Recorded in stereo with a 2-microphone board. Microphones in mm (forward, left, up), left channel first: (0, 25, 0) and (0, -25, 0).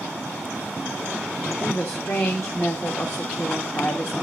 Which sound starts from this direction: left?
A woman speaking, at 1.6 s.